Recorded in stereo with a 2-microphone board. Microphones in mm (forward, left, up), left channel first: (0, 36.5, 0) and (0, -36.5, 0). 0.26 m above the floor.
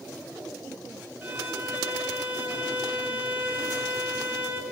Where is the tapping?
No tapping in this recording.